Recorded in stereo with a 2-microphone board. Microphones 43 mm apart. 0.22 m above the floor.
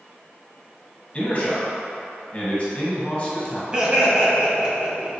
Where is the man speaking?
30° left (ahead or behind), 1.8 m.